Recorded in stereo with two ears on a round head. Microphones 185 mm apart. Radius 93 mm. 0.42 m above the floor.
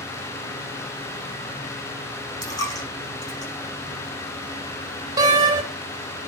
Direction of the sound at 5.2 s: 20° right (ahead or behind).